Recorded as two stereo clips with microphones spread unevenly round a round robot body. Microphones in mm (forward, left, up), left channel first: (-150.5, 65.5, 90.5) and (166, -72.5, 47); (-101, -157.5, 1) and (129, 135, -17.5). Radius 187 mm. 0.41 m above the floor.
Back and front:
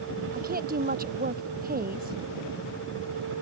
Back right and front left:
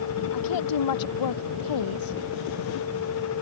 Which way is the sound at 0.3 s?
90° right.